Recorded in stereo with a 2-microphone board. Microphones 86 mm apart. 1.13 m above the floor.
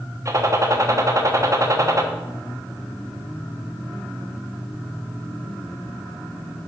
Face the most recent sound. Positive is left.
turn(degrees=-40)  # may be behind; listen again after turning